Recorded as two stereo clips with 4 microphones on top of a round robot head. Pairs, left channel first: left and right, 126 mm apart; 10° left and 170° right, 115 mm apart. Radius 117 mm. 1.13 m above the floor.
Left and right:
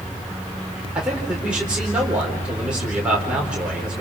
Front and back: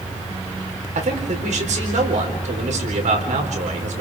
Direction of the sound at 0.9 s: 175° right.